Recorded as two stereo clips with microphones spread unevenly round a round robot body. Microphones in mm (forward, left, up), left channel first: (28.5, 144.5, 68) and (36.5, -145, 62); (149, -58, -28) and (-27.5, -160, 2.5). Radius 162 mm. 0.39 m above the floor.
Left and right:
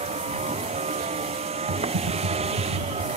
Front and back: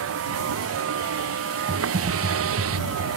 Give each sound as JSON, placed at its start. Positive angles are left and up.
{"t": 0.0, "sound": "a vehicle", "azimuth_deg": -160}
{"t": 1.7, "sound": "typing on a keyboard", "azimuth_deg": -100}